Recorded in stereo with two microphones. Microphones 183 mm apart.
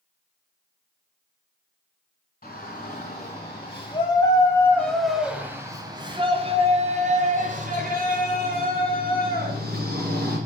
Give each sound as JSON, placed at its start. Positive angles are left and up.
{"t": 2.4, "sound": "a shout", "side_deg": 50, "distance_m": 2.0}